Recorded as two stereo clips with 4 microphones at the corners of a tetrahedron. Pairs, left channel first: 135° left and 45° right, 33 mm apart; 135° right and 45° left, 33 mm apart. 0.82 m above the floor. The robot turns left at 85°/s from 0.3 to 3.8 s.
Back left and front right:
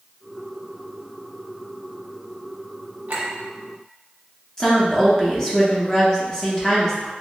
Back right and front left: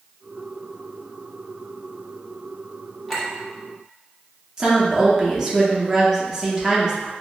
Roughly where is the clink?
Ahead right.